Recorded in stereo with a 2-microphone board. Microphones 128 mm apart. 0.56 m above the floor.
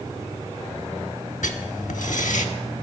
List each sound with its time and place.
1.4 s writing: 80° left, 0.7 m